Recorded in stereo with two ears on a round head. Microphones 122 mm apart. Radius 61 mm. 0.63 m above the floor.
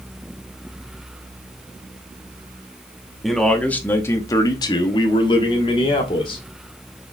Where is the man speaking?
Centre (ahead or behind), 0.8 m; by 6.4 s 40° left (ahead or behind), 1.5 m.